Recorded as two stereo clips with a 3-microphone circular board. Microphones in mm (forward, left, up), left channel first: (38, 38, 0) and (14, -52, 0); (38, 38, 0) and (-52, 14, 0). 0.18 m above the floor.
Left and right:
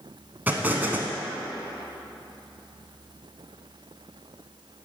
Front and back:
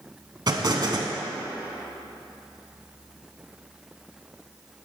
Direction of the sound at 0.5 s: 170° right.